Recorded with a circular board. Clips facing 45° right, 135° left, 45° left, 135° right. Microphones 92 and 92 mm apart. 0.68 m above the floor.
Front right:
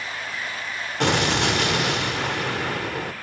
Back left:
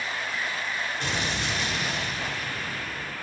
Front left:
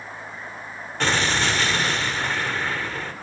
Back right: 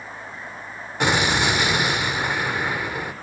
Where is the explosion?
60° right, 1.4 m.